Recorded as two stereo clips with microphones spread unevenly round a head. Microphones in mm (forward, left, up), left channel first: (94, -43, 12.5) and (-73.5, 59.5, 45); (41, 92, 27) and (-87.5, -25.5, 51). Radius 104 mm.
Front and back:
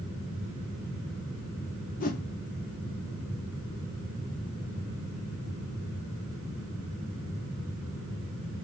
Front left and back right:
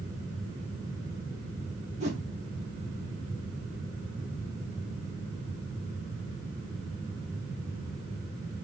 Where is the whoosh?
80° right, 0.7 m.